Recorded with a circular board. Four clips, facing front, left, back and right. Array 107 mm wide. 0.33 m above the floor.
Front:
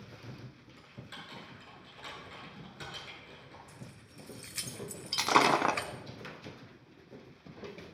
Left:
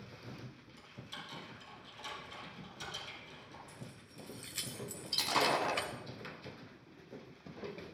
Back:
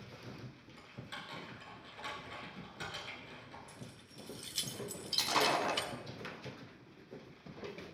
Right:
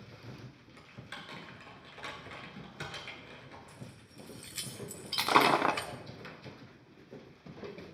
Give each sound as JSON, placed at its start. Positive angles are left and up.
{"t": 0.8, "sound": "typing on a keyboard", "azimuth_deg": -90, "distance_m": 3.5}
{"t": 3.7, "sound": "keys jangling", "azimuth_deg": 0, "distance_m": 1.0}
{"t": 5.1, "sound": "breaking glass", "azimuth_deg": -45, "distance_m": 0.8}